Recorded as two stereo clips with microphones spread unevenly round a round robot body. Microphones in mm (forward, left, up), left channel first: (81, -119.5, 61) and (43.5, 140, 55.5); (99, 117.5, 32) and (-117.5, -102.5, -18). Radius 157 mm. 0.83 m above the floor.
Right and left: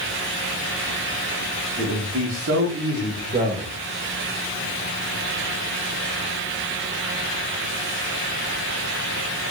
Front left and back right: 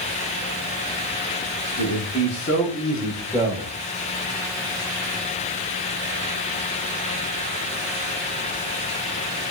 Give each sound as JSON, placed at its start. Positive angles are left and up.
{"t": 1.8, "sound": "a man speaking", "azimuth_deg": 90, "distance_m": 1.4}